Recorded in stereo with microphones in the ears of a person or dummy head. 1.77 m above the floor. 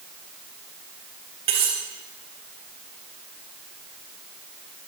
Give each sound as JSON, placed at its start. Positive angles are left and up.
{"t": 1.5, "sound": "cutlery clinking", "side_deg": -35, "distance_m": 3.0}